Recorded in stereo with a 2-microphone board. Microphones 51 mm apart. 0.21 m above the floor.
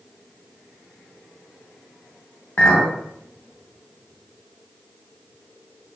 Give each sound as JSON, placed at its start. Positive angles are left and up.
{"t": 2.6, "sound": "a clink", "side_deg": 35, "distance_m": 0.6}